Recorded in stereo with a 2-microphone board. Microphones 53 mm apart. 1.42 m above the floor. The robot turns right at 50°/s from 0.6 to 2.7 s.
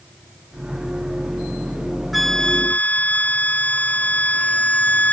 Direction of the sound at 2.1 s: Centre (ahead or behind).